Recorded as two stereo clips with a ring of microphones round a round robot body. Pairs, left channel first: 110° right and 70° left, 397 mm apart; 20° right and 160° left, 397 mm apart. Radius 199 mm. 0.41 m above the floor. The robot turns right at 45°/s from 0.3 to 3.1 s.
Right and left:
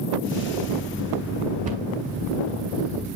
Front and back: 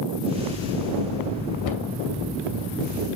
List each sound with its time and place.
1.6 s a cupboard door: 5° right, 2.5 m; by 1.9 s 5° left, 2.5 m